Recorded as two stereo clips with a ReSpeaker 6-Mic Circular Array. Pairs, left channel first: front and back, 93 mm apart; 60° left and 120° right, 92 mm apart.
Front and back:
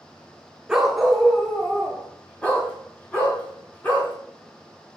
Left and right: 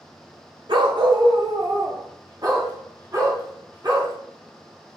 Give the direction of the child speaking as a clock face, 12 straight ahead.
I don't hear a child speaking.